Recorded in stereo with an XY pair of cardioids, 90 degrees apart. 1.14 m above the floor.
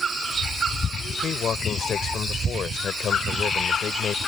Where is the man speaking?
60° left.